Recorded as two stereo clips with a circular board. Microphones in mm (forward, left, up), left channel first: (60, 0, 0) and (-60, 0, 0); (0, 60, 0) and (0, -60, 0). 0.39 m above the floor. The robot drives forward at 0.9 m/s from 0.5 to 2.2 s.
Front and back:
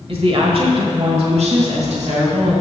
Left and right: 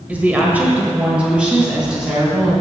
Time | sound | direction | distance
0.1 | a woman speaking | 165° right | 1.4 m